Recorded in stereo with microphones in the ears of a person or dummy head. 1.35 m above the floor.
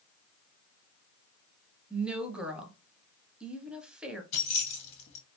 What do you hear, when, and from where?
1.9 s a woman speaking: centre (ahead or behind), 0.6 m
4.3 s keys jangling: 45° left (ahead or behind), 0.9 m